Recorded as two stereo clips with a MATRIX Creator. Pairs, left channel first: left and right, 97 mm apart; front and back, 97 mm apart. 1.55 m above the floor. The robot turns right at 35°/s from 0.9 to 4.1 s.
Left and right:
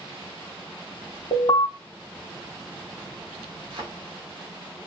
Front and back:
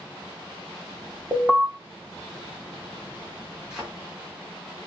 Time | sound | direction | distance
1.3 | an alarm | 105° left | 1.4 m
3.7 | a thud | 100° right | 1.8 m